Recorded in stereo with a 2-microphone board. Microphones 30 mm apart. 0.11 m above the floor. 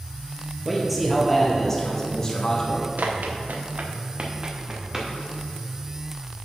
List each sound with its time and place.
0.7 s a man speaking: 5° right (ahead or behind), 2 m; by 2.9 s 20° left (ahead or behind), 3 m
3.0 s running footsteps: 75° right (ahead or behind), 1.5 m; by 5.1 s 20° right (ahead or behind), 2.5 m